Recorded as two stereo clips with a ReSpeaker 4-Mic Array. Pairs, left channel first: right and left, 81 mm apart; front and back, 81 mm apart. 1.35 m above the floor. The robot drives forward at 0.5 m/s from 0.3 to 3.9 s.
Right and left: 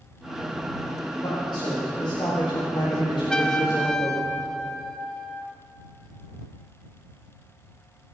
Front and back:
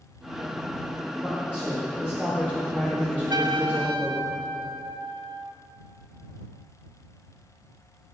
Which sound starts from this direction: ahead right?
A man speaking, at 1.2 s.